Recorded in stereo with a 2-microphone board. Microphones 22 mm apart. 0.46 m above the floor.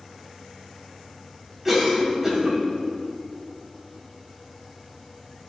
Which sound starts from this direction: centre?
A cough, at 1.6 s.